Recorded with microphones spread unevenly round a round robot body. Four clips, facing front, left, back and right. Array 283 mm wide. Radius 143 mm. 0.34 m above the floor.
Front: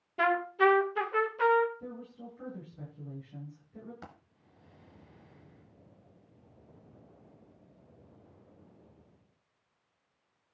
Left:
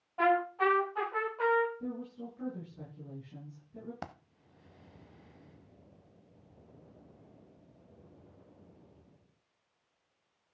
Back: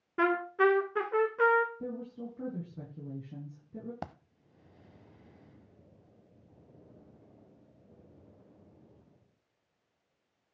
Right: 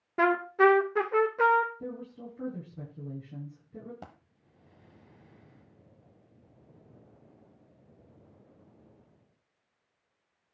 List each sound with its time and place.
0.2 s a trumpet: 125° right, 1.4 m
1.8 s a woman speaking: 155° right, 6.5 m
4.0 s a dropped coin: 170° left, 0.9 m